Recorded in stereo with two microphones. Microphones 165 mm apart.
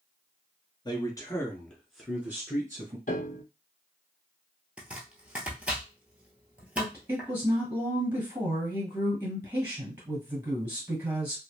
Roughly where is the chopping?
Centre.